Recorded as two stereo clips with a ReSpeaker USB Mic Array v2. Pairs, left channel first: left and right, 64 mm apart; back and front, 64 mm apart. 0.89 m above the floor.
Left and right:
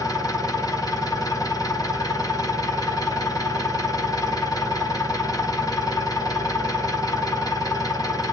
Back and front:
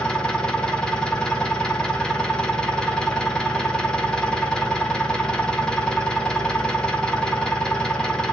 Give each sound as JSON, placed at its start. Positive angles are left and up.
{"t": 0.0, "sound": "an engine running", "azimuth_deg": 105, "distance_m": 1.1}